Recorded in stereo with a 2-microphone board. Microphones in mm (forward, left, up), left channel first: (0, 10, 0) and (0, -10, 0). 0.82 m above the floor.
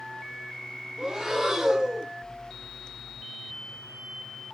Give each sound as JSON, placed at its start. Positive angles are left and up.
{"t": 1.0, "sound": "breathing", "side_deg": -25, "distance_m": 0.5}